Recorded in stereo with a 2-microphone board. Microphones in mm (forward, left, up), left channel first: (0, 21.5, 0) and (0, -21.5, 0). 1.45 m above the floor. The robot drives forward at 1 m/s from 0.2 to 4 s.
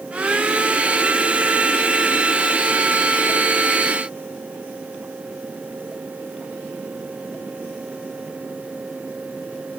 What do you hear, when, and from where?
Only background noise.